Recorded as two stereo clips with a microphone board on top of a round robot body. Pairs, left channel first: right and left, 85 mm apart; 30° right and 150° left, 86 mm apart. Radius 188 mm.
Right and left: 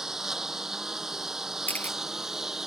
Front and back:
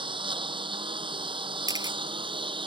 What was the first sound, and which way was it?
A lawn mower, 175° left.